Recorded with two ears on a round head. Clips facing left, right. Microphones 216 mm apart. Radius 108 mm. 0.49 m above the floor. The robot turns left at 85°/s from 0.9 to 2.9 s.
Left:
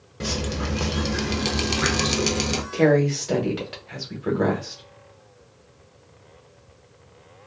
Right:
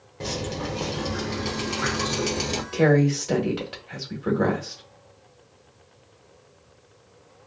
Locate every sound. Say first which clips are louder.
0.2 s dripping: left 2 dB; 155° left, 0.6 m; by 2.6 s 10° left, 0.6 m
2.7 s a woman speaking: left 1 dB; 10° right (ahead or behind), 1.0 m; by 4.8 s centre (ahead or behind), 1.0 m